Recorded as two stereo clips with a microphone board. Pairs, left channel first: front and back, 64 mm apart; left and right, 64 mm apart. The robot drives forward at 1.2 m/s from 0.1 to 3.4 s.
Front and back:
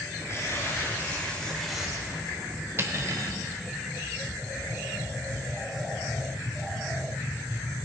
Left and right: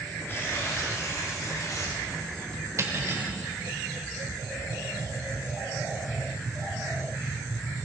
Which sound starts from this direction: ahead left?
Tearing paper, at 0.3 s.